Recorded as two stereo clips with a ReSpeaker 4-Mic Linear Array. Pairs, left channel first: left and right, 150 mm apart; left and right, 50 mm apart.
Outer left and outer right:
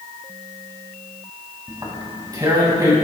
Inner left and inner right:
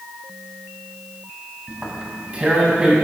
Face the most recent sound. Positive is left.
turn(degrees=-25)  # may be behind; listen again after turning